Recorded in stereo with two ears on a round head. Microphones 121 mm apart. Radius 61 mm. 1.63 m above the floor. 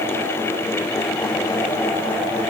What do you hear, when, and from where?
Only background noise.